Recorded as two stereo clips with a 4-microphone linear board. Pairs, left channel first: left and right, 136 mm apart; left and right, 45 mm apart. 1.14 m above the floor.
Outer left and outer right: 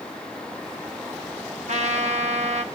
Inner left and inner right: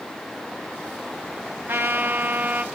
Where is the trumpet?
55° right (ahead or behind), 1.2 m.